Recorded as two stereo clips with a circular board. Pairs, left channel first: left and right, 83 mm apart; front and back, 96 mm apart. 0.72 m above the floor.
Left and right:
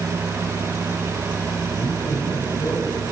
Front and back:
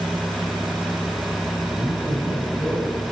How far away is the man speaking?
About 3.5 m.